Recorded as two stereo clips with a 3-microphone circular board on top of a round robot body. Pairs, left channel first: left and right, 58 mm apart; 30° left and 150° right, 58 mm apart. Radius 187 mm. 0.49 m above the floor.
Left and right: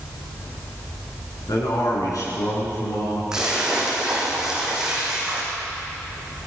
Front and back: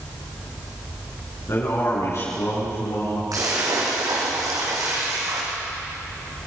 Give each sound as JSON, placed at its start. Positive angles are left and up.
{"t": 1.5, "sound": "a man speaking", "azimuth_deg": 75, "distance_m": 8.0}
{"t": 3.3, "sound": "a splash", "azimuth_deg": -170, "distance_m": 5.5}